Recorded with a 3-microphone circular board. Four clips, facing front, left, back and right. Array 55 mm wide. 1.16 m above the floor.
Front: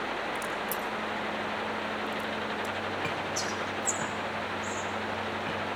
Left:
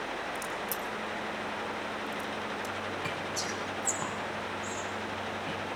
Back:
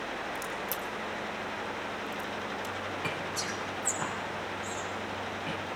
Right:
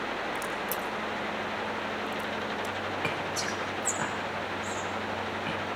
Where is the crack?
150° right, 1.7 m.